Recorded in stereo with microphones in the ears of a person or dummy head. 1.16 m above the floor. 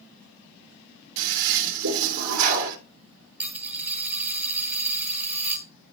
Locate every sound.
1.2 s a toilet flushing: 80° right, 2.5 m
3.4 s a dropped coin: 10° right (ahead or behind), 1.7 m